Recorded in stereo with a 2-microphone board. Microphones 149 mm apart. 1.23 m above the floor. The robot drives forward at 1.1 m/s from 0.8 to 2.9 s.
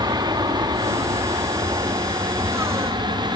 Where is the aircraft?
25° right (ahead or behind); by 3.4 s 30° right (ahead or behind).